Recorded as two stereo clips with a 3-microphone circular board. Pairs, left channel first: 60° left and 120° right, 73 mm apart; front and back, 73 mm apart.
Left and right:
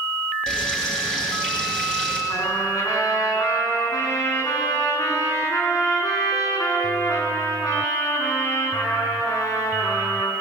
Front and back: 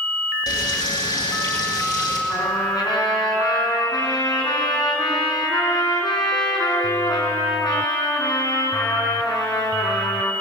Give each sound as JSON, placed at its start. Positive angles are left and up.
{"t": 0.5, "sound": "frying", "azimuth_deg": -20, "distance_m": 8.0}
{"t": 2.3, "sound": "a trumpet", "azimuth_deg": 20, "distance_m": 7.0}